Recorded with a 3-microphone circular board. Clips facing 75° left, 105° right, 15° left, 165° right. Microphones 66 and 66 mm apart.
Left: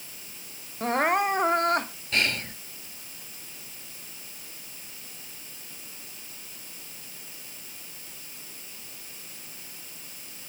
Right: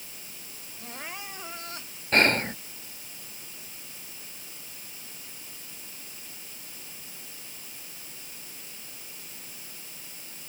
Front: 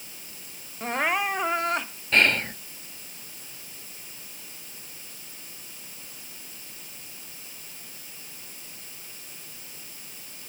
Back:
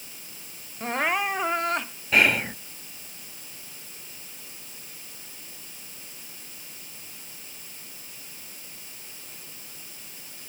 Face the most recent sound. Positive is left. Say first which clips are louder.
# right 6 dB, back 1 dB
turn(degrees=-85)